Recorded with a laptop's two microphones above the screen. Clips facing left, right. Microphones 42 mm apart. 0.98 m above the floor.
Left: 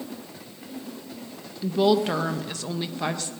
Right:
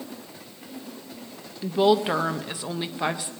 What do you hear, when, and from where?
1.6 s a woman speaking: 15° right (ahead or behind), 0.7 m